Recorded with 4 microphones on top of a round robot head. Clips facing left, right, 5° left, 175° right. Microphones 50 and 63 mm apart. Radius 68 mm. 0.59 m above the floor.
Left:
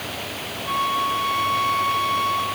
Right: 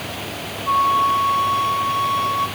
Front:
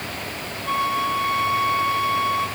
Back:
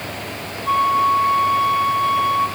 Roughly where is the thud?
No thud in this recording.